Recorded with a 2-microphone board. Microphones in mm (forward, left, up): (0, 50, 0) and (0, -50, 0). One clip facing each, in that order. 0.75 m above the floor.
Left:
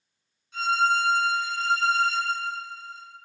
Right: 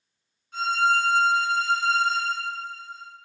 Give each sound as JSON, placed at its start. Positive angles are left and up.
{"t": 0.5, "sound": "a violin", "side_deg": -50, "distance_m": 1.7}